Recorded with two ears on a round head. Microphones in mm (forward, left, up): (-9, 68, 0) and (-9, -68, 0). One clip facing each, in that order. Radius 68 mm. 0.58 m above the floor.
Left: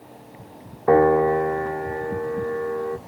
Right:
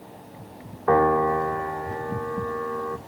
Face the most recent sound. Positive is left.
turn(degrees=25)  # may be behind; listen again after turning